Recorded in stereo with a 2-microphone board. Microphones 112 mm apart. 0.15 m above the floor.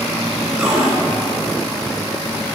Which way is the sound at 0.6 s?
5° right (ahead or behind).